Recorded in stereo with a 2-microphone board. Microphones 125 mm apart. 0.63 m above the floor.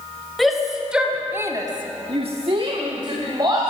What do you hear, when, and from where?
0.4 s a shout: centre (ahead or behind), 2.5 m; by 3.7 s 30° right (ahead or behind), 3 m